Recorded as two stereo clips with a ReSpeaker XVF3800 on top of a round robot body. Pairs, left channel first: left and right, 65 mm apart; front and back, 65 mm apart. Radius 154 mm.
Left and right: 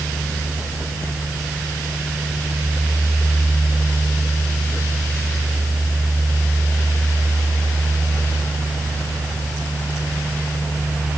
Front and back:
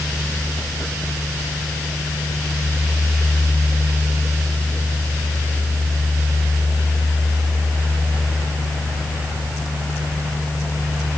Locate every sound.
Only background noise.